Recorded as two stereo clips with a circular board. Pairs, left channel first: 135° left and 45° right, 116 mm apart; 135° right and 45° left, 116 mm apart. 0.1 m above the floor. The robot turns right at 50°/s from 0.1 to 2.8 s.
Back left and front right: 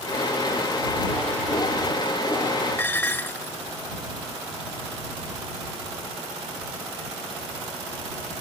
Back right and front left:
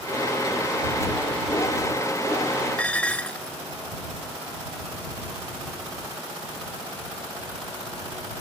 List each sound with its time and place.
2.8 s dishes clattering: 170° left